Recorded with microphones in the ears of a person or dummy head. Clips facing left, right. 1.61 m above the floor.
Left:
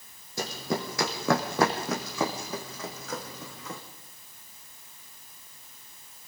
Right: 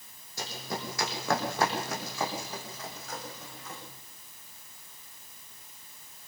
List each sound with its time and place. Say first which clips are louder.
0.4 s running footsteps: left 6 dB; 60° left (ahead or behind), 4.5 m; by 3.8 s 70° left (ahead or behind), 5 m